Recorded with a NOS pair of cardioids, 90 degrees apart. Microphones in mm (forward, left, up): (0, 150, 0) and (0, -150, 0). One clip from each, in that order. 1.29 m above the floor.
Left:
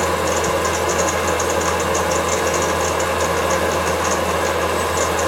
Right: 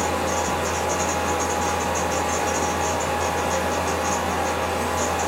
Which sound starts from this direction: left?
A fan, at 0.0 s.